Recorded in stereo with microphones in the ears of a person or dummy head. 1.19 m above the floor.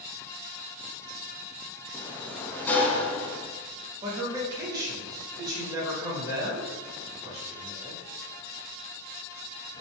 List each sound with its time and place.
1.9 s a sliding door: 10° left (ahead or behind), 0.6 m
4.0 s a man speaking: 20° right (ahead or behind), 1.2 m